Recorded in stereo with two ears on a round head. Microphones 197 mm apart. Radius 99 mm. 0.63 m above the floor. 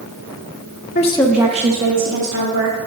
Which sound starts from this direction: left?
A woman speaking, at 0.9 s.